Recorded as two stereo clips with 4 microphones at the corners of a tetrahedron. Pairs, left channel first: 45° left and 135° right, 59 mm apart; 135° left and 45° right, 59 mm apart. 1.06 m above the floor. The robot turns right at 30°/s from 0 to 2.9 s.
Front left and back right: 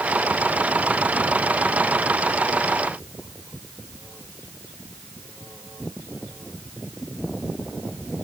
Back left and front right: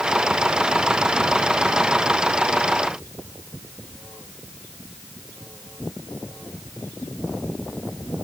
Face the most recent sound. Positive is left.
No sound to turn to.